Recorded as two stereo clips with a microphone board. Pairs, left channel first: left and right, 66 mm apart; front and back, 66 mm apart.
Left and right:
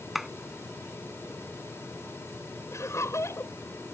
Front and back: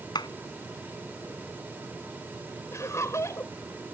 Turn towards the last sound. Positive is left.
turn(degrees=45)